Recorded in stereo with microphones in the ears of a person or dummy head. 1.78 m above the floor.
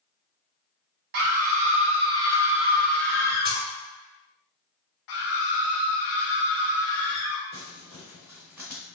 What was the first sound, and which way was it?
A scream, 55° right (ahead or behind).